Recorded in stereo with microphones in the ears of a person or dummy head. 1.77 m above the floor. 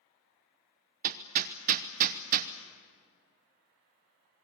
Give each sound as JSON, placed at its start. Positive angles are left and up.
{"t": 1.0, "sound": "hammering", "side_deg": -45, "distance_m": 1.1}